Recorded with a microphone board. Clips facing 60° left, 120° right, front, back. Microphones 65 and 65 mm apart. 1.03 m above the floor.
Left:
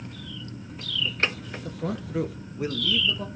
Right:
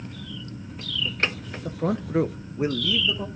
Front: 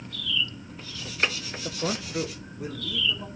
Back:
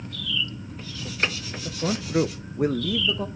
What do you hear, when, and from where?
1.6 s a man speaking: 60° right, 0.7 m; by 3.3 s 165° left, 1.5 m